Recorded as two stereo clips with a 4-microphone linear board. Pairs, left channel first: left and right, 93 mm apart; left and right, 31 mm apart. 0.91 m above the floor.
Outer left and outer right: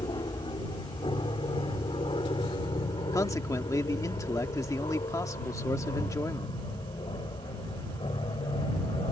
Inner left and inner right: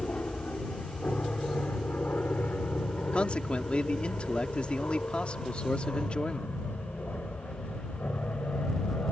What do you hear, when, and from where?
0.0 s an aircraft: 60° left (ahead or behind); by 9.1 s 70° left (ahead or behind)
3.1 s a man speaking: 35° left (ahead or behind)